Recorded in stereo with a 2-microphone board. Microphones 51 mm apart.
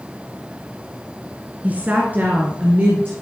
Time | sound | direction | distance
1.6 | a woman speaking | 30° right (ahead or behind) | 1.5 m